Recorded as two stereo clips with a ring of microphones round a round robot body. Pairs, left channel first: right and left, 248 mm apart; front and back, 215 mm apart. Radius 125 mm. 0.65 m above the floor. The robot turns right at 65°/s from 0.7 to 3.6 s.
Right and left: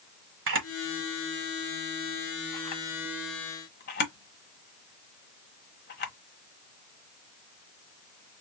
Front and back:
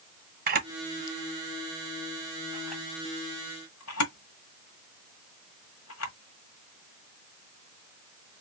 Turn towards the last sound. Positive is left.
turn(degrees=-40)